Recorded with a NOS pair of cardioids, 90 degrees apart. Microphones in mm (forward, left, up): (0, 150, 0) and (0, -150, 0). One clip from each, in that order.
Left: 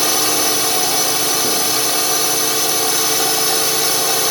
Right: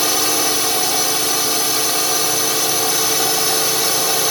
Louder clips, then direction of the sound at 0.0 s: Left 1 dB; 5° left.